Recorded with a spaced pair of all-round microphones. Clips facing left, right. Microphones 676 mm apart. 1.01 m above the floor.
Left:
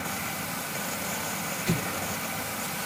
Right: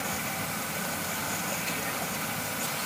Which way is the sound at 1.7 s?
80° left.